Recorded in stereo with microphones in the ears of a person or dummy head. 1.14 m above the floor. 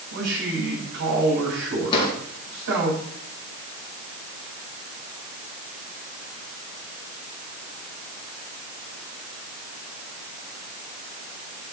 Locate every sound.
0.1 s a man speaking: 75° right (ahead or behind), 8 m
1.9 s a drawer: 25° left (ahead or behind), 5 m